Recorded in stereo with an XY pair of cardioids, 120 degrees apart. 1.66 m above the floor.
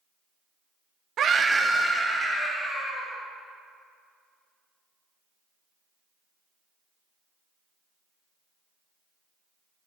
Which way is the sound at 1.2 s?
55° right.